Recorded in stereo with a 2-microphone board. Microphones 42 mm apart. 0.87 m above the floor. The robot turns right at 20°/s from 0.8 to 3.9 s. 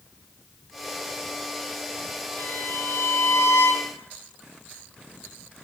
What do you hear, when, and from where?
2.4 s a violin: 65° left, 3.5 m; by 3.9 s 95° left, 3.5 m